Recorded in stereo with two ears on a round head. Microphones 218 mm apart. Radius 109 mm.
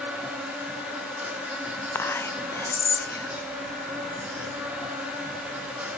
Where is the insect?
5° right (ahead or behind), 2 m.